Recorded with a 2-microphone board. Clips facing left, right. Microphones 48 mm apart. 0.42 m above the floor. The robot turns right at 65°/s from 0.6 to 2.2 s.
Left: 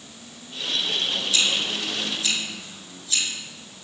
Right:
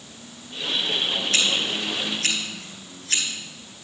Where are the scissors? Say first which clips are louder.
Even; 55° right (ahead or behind), 4.5 m; by 3.2 s 65° right (ahead or behind), 4.5 m.